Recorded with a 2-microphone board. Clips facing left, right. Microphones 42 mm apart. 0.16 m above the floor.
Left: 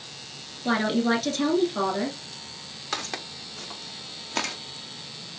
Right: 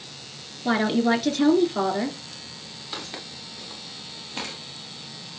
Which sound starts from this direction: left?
Footsteps, at 2.9 s.